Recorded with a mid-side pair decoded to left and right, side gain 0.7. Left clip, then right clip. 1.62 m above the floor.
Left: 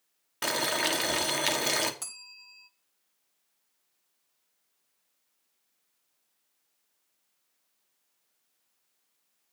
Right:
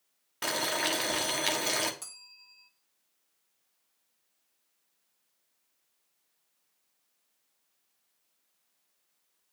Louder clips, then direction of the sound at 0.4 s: Left 2 dB; 15° left.